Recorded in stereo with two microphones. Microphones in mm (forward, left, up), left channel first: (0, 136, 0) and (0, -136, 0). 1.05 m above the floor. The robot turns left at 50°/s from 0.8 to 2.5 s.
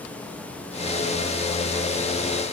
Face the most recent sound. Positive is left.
No sound to turn to.